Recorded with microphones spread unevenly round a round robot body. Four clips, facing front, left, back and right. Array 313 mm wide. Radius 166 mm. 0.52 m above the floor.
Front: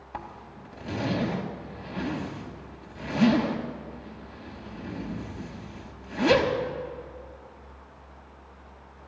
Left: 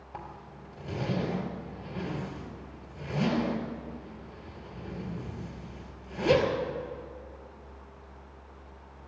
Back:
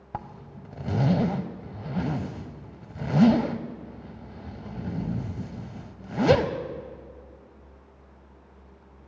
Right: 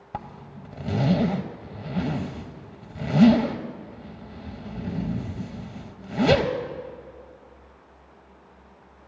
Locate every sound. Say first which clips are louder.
0.1 s a zipper: right 7 dB, back 2 dB; 105° right, 0.6 m